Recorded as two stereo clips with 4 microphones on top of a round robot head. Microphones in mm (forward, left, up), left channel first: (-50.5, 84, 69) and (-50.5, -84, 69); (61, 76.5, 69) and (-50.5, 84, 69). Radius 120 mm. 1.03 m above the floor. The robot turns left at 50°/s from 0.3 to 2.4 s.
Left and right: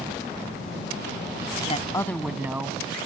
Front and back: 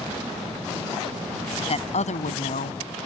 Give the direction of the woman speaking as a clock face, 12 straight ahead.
11 o'clock.